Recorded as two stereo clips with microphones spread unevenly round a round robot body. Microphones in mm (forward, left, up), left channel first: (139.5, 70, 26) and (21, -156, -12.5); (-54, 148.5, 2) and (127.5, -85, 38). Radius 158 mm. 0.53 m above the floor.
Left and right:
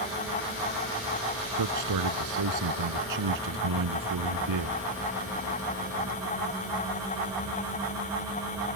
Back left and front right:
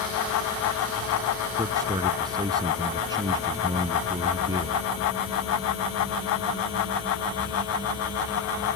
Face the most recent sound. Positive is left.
turn(degrees=-130)